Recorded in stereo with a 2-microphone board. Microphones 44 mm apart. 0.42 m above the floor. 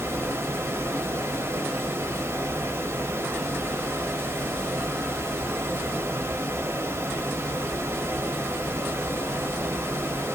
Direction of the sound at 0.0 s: 65° right (ahead or behind).